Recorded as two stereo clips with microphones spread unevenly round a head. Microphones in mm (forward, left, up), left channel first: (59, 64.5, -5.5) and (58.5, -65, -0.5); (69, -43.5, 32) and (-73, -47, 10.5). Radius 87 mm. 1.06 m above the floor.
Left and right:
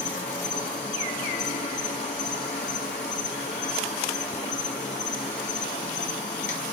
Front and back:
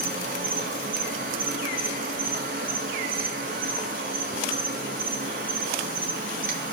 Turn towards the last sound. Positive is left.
turn(degrees=140)